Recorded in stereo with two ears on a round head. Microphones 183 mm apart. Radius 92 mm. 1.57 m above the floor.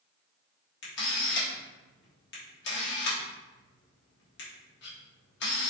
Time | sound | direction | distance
0.8 | a camera shutter | 55° left (ahead or behind) | 1.3 m